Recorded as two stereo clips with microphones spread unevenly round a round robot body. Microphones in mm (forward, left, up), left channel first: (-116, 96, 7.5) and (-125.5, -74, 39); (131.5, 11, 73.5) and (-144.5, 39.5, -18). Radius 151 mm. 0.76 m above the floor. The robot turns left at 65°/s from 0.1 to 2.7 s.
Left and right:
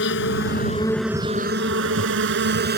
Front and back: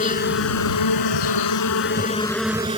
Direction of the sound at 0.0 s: 55° left.